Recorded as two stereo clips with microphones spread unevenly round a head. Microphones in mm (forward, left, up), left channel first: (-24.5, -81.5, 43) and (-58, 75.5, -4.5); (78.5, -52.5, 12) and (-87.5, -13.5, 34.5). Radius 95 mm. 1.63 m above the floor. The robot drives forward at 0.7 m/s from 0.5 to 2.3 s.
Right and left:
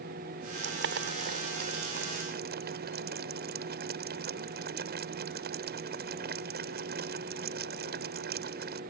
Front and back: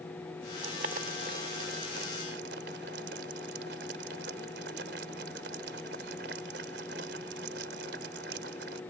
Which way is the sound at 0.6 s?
115° left.